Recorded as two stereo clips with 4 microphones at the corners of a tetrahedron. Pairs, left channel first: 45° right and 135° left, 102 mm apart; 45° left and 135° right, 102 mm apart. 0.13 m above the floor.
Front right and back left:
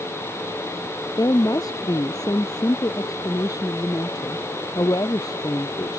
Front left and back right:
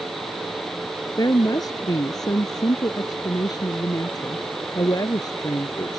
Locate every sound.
1.2 s a woman speaking: straight ahead